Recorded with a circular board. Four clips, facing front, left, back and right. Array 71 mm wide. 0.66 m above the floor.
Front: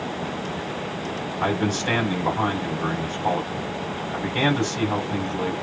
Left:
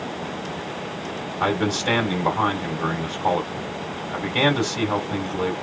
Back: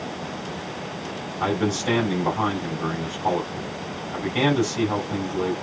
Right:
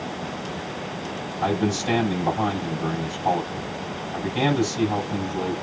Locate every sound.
1.4 s a man speaking: 110° left, 2 m